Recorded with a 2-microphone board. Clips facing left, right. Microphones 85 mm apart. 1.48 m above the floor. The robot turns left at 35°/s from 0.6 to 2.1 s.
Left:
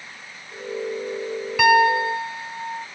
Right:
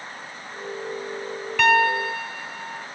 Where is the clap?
No clap in this recording.